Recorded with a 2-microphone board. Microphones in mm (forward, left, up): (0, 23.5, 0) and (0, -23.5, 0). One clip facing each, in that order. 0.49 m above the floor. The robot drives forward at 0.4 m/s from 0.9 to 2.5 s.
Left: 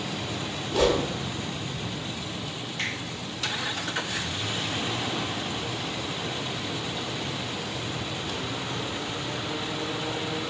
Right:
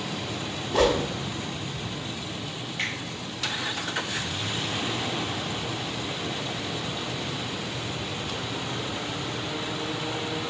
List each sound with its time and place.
0.7 s a whoosh: 55° right (ahead or behind), 0.7 m
2.8 s a finger snap: 15° right (ahead or behind), 1.9 m